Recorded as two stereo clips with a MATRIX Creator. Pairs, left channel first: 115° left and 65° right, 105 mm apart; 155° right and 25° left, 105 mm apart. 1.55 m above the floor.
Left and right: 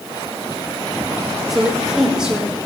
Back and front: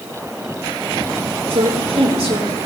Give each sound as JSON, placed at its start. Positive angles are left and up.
{"t": 1.5, "sound": "a woman speaking", "azimuth_deg": 20, "distance_m": 5.5}